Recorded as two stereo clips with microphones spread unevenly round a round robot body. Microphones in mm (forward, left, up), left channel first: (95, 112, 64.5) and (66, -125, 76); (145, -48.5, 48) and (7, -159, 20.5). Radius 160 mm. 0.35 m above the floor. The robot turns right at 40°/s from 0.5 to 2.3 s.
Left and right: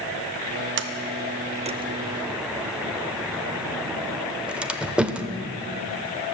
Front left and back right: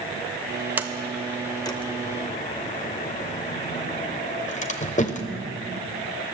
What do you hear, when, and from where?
0.8 s a sliding door: 70° right, 0.8 m; by 5.3 s 10° right, 0.8 m